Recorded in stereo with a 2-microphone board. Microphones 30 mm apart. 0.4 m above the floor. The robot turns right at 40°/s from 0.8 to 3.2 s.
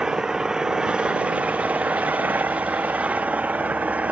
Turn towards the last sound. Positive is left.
turn(degrees=-65)